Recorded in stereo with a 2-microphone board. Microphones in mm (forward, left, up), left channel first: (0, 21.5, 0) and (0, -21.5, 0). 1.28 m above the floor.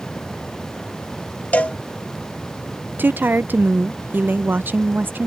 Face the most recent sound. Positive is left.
turn(degrees=-50)  # may be behind; listen again after turning